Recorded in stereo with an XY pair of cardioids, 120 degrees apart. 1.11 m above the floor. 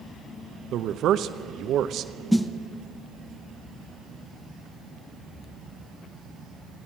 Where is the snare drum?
5° left, 0.9 m.